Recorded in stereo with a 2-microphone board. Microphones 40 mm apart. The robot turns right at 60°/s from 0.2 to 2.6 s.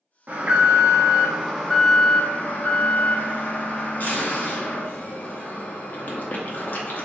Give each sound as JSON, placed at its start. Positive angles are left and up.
{"t": 0.3, "sound": "an alarm", "azimuth_deg": -65, "distance_m": 0.7}